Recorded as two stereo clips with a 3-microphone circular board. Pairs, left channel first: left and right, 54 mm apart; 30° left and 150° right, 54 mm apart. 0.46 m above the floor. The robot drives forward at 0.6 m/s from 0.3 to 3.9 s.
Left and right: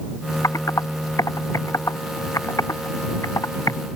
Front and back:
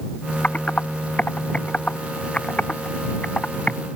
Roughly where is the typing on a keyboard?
Left.